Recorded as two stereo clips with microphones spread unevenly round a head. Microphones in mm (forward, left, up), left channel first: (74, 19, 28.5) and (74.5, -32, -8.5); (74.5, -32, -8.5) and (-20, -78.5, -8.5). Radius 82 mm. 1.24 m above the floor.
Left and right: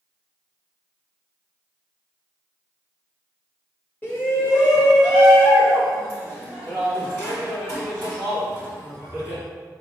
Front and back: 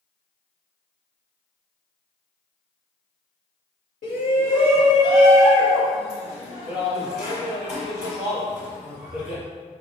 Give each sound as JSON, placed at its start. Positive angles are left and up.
{"t": 4.0, "sound": "a shout", "azimuth_deg": 40, "distance_m": 1.6}